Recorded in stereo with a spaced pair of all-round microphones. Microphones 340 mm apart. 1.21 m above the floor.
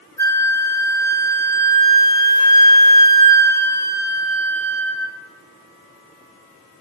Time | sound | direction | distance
0.2 | a flute | 55° left (ahead or behind) | 1.0 m